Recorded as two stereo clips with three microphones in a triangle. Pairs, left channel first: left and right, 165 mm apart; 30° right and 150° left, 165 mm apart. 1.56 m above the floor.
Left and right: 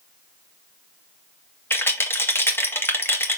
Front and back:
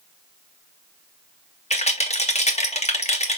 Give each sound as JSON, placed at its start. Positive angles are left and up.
{"t": 1.7, "sound": "a rattle", "azimuth_deg": 15, "distance_m": 1.9}